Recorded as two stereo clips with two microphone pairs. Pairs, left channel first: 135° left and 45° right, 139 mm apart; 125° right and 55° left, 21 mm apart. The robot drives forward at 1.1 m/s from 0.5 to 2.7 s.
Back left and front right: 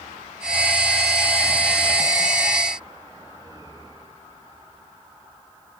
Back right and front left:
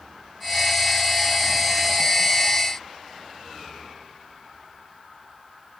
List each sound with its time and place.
Only background noise.